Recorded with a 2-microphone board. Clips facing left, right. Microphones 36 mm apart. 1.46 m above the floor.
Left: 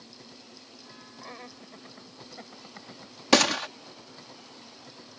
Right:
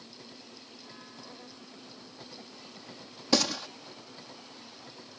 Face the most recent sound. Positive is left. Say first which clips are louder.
# left 6 dB
turn(degrees=70)  # may be behind; listen again after turning